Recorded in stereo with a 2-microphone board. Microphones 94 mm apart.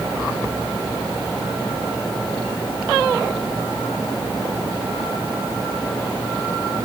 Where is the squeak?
No squeak in this recording.